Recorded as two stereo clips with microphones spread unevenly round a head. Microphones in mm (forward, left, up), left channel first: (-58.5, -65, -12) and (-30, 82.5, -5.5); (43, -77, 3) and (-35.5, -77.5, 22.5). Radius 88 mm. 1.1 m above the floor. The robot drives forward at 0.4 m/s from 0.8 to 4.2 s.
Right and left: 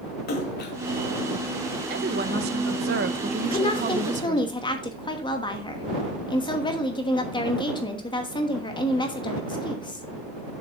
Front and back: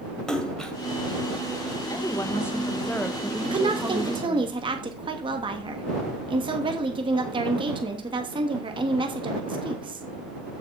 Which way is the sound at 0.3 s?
85° right.